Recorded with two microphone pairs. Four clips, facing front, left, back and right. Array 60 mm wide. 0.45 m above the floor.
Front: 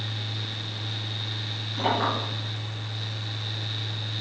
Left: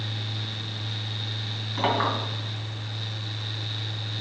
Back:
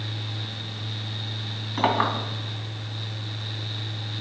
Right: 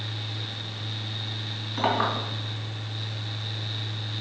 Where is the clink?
175° left, 3 m.